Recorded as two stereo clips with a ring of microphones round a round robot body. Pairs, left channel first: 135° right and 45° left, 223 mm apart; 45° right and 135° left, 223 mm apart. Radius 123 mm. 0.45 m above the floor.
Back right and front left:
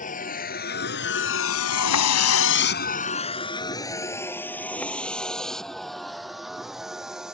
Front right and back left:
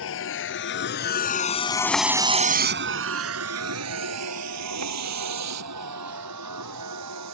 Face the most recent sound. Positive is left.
turn(degrees=135)